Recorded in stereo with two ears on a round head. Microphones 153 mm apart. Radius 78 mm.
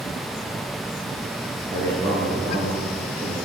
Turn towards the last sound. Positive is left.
turn(degrees=-40)  # may be behind; listen again after turning